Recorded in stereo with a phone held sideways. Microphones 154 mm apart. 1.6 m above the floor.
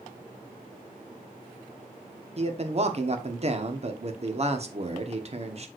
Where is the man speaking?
45° right (ahead or behind), 1.2 m.